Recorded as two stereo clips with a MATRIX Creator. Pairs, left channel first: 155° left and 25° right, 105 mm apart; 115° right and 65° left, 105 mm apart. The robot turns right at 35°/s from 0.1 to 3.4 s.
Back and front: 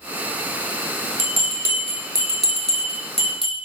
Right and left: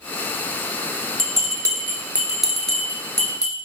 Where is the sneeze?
No sneeze in this recording.